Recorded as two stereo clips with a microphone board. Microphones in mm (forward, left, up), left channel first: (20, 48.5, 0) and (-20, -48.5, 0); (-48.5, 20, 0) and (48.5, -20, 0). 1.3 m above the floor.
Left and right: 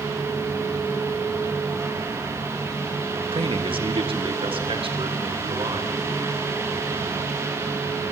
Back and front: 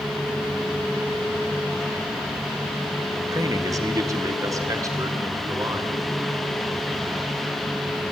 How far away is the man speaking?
About 1.5 m.